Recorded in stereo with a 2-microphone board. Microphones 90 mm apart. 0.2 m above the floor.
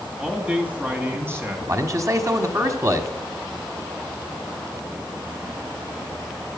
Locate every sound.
0.2 s a man speaking: 10° right (ahead or behind), 2 m; by 1.6 s 30° right (ahead or behind), 2.5 m
1.7 s a man speaking: 35° right (ahead or behind), 1.2 m